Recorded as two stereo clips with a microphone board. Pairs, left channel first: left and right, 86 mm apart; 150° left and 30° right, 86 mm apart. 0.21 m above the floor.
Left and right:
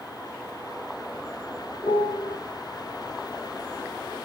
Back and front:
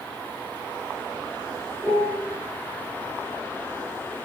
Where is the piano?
70° left, 4.5 m.